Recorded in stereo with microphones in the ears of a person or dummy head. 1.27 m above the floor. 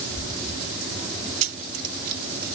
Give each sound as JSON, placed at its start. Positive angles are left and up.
{"t": 1.4, "sound": "keys jangling", "side_deg": -40, "distance_m": 0.5}